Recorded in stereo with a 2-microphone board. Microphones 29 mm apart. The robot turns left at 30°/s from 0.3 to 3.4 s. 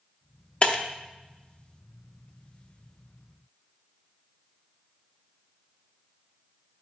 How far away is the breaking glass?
About 0.6 m.